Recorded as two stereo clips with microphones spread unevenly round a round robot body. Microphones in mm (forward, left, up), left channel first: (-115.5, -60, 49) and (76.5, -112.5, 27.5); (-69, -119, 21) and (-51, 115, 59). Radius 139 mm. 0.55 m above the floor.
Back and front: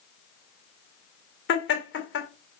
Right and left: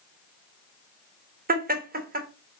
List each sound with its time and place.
1.5 s laughter: 140° left, 2 m